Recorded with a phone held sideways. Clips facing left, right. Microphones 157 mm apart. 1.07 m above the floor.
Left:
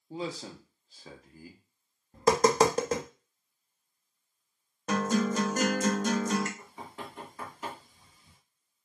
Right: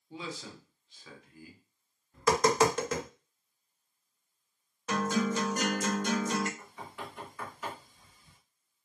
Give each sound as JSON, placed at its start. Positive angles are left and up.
{"t": 0.1, "sound": "a man speaking", "side_deg": 40, "distance_m": 0.7}
{"t": 2.1, "sound": "tapping", "side_deg": 35, "distance_m": 0.6}
{"t": 4.9, "sound": "a guitar", "side_deg": 45, "distance_m": 0.7}
{"t": 6.6, "sound": "knocking", "side_deg": 35, "distance_m": 1.9}